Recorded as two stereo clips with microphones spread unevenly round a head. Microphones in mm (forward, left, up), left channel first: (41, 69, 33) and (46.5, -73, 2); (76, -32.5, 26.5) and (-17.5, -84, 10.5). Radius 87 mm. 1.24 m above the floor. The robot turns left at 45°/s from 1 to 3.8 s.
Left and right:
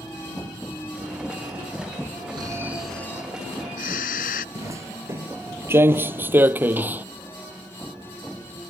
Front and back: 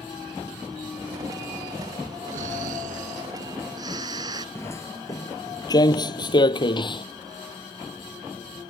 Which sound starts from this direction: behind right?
Snoring, at 2.3 s.